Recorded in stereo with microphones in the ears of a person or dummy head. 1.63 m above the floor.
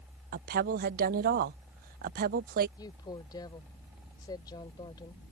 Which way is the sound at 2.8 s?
25° left (ahead or behind).